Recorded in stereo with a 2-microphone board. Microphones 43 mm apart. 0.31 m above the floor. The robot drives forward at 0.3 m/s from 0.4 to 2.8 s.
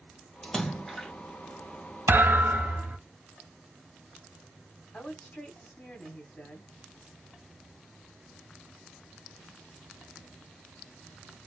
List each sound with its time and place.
0.4 s a splash: 5° left (ahead or behind), 0.8 m
2.1 s a thud: 50° right (ahead or behind), 0.6 m; by 3.0 s 40° right (ahead or behind), 0.7 m
4.9 s a woman speaking: 30° left (ahead or behind), 1.0 m